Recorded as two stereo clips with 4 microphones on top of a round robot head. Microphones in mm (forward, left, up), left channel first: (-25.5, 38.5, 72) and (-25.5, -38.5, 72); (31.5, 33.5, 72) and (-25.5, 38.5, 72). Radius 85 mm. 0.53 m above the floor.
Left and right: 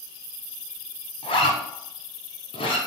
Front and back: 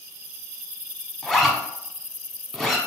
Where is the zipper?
80° left, 0.8 m.